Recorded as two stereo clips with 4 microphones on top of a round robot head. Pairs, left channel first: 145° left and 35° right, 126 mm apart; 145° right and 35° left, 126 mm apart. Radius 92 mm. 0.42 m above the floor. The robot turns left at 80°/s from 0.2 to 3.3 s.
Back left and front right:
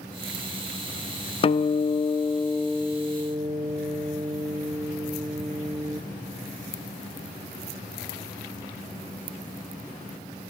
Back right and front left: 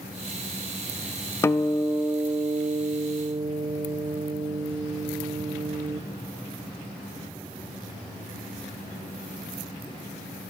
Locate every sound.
1.4 s a guitar: 155° left, 0.6 m; by 6.0 s 5° left, 0.6 m